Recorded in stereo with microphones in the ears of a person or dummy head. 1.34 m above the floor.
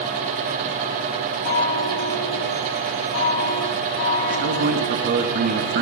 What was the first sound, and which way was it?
A chime, 80° left.